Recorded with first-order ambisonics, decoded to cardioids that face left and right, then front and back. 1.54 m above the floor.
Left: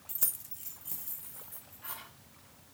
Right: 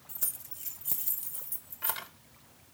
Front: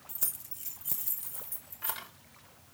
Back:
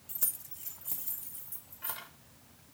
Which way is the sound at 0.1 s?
90° left.